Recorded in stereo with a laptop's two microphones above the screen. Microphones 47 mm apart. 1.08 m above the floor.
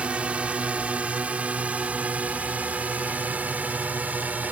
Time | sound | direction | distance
0.0 | a drone | 25° right (ahead or behind) | ?